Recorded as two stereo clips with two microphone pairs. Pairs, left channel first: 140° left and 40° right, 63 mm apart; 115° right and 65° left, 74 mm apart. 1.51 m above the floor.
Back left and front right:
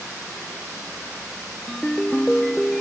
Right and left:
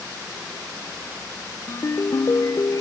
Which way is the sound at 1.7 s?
145° right.